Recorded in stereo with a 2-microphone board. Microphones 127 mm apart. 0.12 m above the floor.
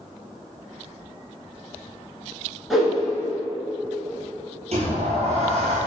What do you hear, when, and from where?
2.7 s a whoosh: centre (ahead or behind), 0.8 m
4.7 s a sliding door: 60° right (ahead or behind), 1.0 m